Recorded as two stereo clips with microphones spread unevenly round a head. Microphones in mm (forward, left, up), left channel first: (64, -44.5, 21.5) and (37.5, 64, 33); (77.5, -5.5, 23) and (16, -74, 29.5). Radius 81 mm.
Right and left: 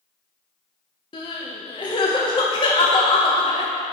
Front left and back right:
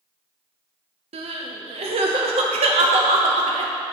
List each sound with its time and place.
1.1 s crying: 135° right, 0.6 m